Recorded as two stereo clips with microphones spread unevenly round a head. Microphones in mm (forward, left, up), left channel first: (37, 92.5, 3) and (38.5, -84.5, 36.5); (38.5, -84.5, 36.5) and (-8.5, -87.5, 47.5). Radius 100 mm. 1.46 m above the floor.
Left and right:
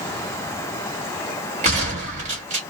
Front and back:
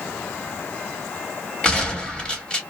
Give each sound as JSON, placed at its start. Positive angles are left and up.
{"t": 1.6, "sound": "a gunshot", "azimuth_deg": -70, "distance_m": 1.5}